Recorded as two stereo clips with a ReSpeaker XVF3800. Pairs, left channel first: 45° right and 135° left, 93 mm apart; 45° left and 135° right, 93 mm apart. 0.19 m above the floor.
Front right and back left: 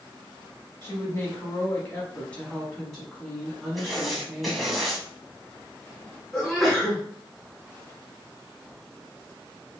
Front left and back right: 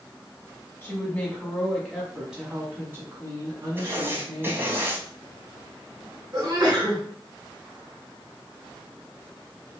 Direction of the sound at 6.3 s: 135° right.